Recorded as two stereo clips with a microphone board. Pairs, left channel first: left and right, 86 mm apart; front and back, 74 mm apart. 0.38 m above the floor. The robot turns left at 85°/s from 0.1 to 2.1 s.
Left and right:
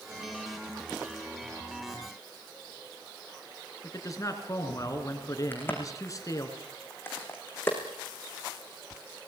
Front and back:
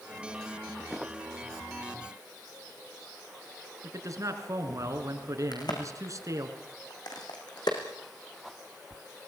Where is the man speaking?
135° left, 4 m.